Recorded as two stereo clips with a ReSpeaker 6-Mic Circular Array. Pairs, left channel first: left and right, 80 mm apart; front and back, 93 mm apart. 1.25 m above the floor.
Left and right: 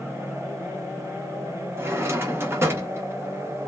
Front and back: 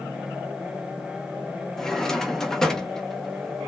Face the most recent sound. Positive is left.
turn(degrees=-80)